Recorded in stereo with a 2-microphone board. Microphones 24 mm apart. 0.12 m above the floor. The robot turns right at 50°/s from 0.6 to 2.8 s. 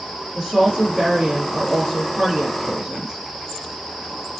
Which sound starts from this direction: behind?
A woman speaking, at 0.3 s.